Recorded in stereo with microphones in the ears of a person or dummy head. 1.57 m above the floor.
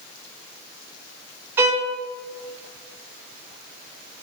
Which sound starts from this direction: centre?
A violin, at 1.6 s.